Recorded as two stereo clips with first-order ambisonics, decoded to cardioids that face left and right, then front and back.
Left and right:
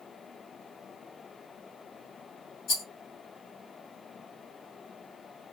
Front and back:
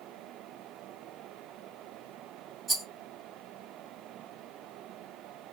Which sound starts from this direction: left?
A rattle, at 2.7 s.